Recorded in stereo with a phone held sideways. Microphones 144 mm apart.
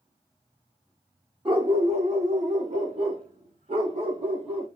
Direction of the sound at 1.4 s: 35° right (ahead or behind).